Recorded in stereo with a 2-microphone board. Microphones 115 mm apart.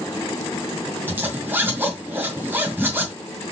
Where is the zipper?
20° right (ahead or behind), 1.9 m.